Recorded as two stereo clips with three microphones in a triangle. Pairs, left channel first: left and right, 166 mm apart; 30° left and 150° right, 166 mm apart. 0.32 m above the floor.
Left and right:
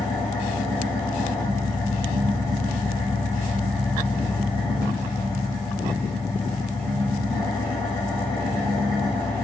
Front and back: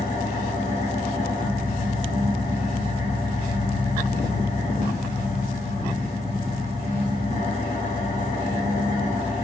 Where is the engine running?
35° left, 1.0 m.